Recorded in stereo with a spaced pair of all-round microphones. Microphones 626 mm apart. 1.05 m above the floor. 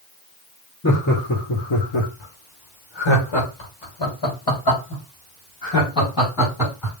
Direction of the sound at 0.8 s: 25° left (ahead or behind).